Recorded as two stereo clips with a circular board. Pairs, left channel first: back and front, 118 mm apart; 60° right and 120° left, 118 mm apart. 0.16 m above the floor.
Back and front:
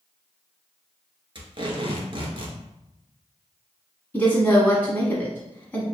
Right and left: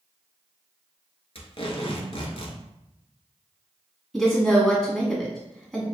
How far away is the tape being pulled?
About 1.1 m.